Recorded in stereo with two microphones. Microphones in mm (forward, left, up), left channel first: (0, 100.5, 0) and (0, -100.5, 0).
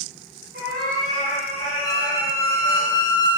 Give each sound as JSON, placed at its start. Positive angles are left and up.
{"t": 0.5, "sound": "a cat meowing", "side_deg": -55, "distance_m": 1.8}
{"t": 1.8, "sound": "a squeak", "side_deg": -80, "distance_m": 0.8}